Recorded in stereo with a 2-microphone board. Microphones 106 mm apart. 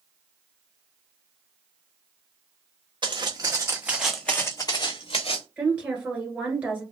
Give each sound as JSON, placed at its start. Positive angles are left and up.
{"t": 3.0, "sound": "footsteps", "side_deg": -45, "distance_m": 0.9}
{"t": 5.6, "sound": "a woman speaking", "side_deg": -10, "distance_m": 1.4}